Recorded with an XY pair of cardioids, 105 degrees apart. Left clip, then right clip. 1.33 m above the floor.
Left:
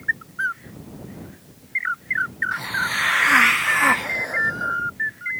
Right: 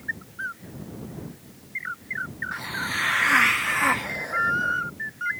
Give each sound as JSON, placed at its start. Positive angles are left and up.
{"t": 2.5, "sound": "a hiss", "azimuth_deg": 25}